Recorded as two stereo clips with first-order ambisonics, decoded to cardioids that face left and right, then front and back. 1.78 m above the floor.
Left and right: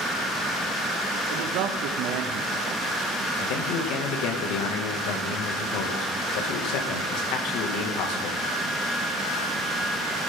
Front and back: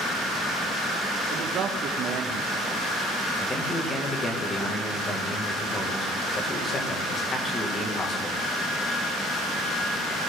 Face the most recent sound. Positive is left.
turn(degrees=75)